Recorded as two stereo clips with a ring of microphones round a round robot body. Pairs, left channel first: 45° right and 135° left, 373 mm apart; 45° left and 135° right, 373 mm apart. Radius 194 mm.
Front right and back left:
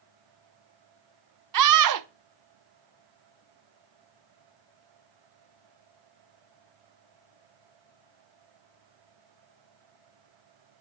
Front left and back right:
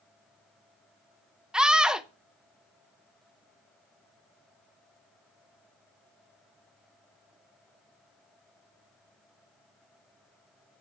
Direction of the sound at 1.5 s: 140° left.